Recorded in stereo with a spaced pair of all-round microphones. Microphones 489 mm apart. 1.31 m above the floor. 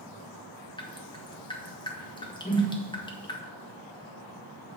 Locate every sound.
0.8 s dripping: 10° left (ahead or behind), 1.2 m
2.5 s a whoosh: 20° left (ahead or behind), 1.0 m